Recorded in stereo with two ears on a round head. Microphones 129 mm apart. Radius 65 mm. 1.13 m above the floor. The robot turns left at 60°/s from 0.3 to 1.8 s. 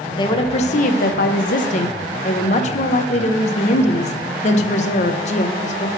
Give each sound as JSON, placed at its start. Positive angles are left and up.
{"t": 0.1, "sound": "a woman speaking", "azimuth_deg": 145, "distance_m": 0.8}